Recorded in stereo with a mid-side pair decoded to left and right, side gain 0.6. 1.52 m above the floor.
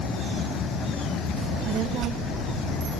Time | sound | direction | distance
1.4 | a child speaking | 65° right | 1.7 m